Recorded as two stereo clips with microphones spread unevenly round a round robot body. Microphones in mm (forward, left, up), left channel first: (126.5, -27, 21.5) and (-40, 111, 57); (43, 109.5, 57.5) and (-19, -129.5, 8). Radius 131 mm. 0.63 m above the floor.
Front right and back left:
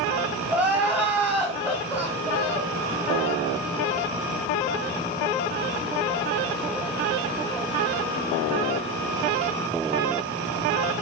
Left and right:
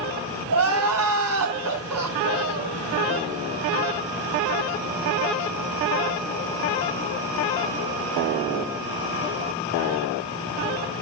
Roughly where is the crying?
Behind right.